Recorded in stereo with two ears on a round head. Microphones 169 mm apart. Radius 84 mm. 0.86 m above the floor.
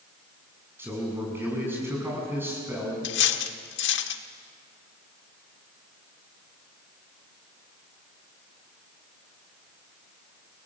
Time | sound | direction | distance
0.8 | a man speaking | 10° right (ahead or behind) | 7.5 m
3.0 | cutlery clinking | 70° left (ahead or behind) | 1.4 m